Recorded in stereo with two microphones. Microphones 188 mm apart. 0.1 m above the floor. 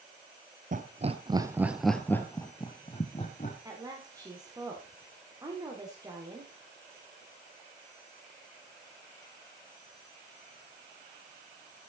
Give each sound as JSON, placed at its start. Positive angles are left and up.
{"t": 0.7, "sound": "laughter", "side_deg": -45, "distance_m": 1.8}
{"t": 3.6, "sound": "a woman speaking", "side_deg": -20, "distance_m": 7.5}